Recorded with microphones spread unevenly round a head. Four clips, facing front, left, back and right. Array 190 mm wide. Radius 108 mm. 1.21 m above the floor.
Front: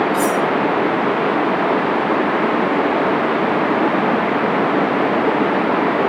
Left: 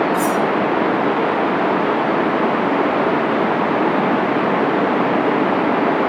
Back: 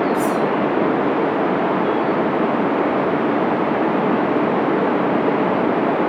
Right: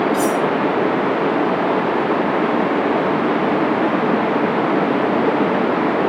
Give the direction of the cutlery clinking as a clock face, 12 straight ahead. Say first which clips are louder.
Even, front 1 dB; 1 o'clock.